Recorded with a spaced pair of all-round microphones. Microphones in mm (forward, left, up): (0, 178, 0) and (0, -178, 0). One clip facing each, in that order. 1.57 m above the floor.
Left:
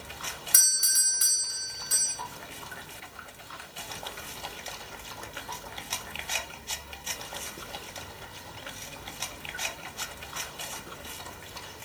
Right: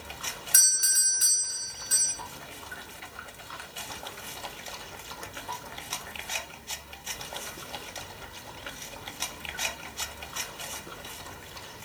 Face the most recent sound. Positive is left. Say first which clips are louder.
# right 1 dB
turn(degrees=5)  # may be behind; listen again after turning